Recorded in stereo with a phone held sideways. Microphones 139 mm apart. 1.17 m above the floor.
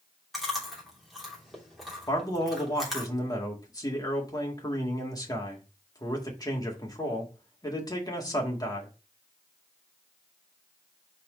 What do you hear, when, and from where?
0.3 s chewing: centre (ahead or behind), 3 m
2.1 s a man speaking: 25° left (ahead or behind), 1.9 m